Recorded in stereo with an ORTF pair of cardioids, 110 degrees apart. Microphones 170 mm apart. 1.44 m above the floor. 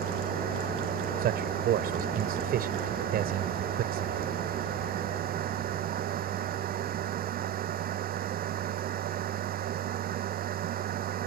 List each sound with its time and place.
0.0 s a machine running: 60° right
1.2 s a man speaking: 65° right